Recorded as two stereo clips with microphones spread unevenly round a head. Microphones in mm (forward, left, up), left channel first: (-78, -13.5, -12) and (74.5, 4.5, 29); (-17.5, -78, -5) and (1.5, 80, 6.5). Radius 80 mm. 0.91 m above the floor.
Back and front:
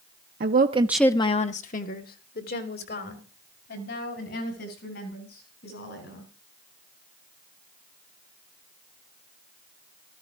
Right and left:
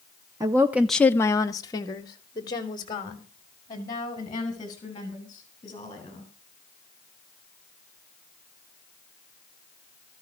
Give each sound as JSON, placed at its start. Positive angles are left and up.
{"t": 0.4, "sound": "a woman speaking", "azimuth_deg": 15, "distance_m": 0.9}